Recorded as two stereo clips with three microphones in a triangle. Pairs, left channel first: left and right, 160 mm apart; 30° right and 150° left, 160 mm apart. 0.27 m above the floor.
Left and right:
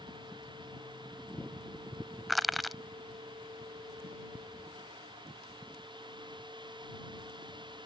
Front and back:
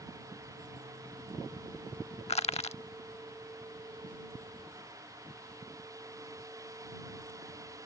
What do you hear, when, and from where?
2.3 s crushing: straight ahead